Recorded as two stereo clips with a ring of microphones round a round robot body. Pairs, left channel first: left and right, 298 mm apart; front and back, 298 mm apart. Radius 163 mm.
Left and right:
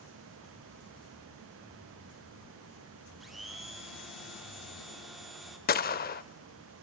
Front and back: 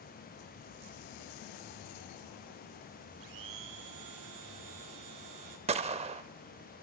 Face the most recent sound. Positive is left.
turn(degrees=125)